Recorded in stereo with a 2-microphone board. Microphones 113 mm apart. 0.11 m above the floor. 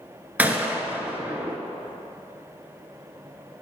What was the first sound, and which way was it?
A gunshot, 15° right (ahead or behind).